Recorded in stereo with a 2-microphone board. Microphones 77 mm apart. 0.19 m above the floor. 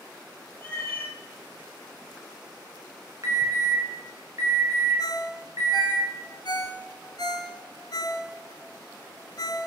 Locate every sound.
0.6 s a cat meowing: 20° left (ahead or behind), 1.8 m
3.2 s an alarm: 45° right (ahead or behind), 1.7 m
5.0 s a ringtone: 60° left (ahead or behind), 1.2 m